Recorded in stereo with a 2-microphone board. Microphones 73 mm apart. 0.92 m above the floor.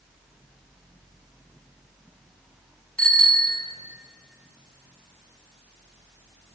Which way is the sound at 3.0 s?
20° left (ahead or behind).